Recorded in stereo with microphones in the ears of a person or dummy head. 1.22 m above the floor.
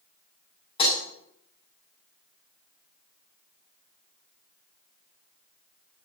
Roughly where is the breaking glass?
Left.